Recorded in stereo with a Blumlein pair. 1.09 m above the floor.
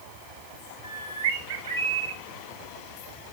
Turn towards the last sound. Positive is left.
turn(degrees=-65)